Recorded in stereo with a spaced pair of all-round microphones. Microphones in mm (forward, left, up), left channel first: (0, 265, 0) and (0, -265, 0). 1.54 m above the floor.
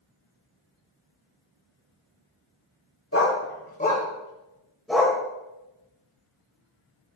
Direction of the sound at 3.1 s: 25° left (ahead or behind).